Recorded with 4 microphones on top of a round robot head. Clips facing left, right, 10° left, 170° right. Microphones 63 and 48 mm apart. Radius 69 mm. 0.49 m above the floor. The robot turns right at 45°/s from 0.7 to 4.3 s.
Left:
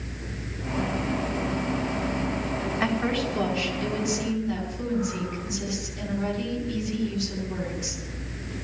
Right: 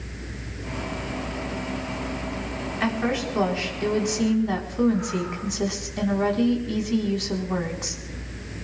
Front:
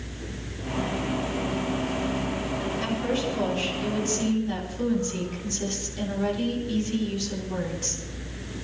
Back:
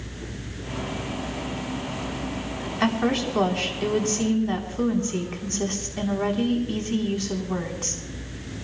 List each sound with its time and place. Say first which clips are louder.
2.8 s a woman speaking: right 2 dB, back 7 dB; 175° left, 4 m; by 8.0 s 120° right, 4 m